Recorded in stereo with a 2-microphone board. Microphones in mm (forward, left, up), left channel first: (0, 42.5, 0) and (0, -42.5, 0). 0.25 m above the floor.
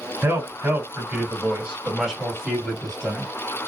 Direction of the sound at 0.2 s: 30° right (ahead or behind).